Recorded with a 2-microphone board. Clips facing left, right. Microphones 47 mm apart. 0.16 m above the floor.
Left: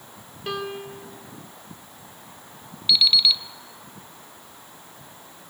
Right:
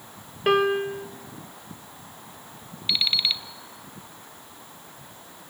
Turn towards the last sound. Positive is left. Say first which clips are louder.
# left 5 dB
turn(degrees=-25)  # may be behind; listen again after turning